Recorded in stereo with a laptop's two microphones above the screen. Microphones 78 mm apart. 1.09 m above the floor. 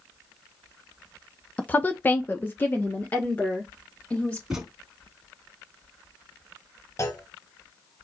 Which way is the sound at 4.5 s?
10° right (ahead or behind).